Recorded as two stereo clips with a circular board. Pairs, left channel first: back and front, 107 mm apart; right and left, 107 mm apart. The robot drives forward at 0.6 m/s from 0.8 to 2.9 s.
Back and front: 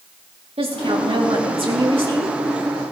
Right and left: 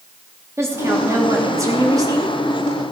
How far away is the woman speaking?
About 3 m.